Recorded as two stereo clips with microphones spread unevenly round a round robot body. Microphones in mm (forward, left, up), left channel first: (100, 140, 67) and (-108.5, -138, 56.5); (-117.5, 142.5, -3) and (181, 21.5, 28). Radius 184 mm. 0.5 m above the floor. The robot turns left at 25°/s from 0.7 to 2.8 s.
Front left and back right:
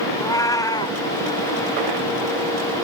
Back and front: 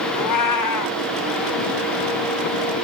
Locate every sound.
0.1 s a cat meowing: 135° left, 1.0 m; by 1.0 s 125° left, 1.0 m